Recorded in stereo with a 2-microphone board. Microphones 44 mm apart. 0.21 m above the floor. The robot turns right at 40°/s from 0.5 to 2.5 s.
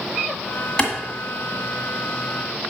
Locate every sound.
0.8 s a clap: 20° left (ahead or behind), 1.7 m; by 0.9 s 25° left (ahead or behind), 1.7 m